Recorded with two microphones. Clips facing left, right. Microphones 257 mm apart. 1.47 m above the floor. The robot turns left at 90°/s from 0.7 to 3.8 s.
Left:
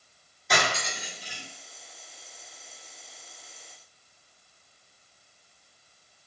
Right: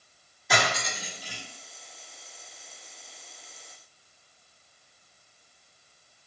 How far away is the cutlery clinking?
About 1.4 m.